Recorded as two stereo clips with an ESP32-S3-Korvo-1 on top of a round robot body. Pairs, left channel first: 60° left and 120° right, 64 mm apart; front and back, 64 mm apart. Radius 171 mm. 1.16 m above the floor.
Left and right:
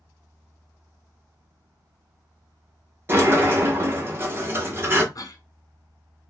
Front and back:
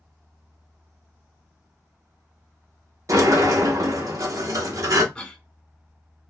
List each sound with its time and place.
3.1 s a sliding door: 165° right, 1.0 m
5.2 s a cough: 75° left, 1.1 m